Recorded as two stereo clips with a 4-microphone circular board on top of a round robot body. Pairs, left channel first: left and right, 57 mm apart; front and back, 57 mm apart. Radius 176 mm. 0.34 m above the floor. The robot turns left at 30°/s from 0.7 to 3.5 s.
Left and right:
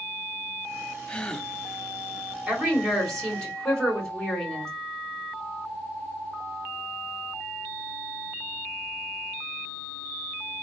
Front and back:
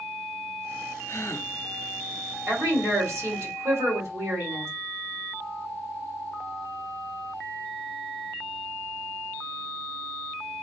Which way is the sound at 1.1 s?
25° left.